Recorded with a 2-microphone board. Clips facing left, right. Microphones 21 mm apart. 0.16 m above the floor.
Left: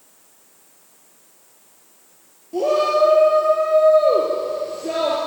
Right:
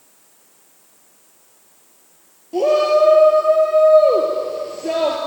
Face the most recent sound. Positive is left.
turn(degrees=-25)  # may be behind; listen again after turning